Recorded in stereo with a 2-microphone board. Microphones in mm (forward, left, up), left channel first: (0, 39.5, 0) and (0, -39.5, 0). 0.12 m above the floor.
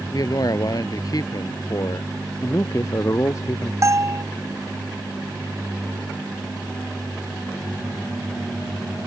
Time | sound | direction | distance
0.1 | a man speaking | 55° left (ahead or behind) | ?
2.4 | a man speaking | 40° left (ahead or behind) | ?
3.8 | a bell | 40° right (ahead or behind) | ?